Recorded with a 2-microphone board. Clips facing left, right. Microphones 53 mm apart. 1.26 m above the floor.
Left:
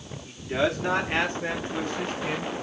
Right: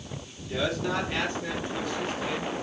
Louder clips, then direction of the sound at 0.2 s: Left 4 dB; 40° left (ahead or behind).